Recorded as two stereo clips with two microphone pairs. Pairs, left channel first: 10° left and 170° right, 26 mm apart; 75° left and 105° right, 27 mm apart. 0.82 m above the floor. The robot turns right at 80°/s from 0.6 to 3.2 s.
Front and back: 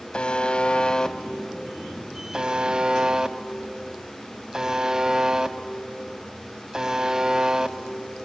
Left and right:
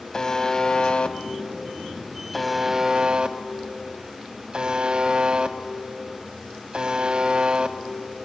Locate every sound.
0.1 s a buzzer: 25° left, 0.7 m; by 8.3 s 130° right, 0.7 m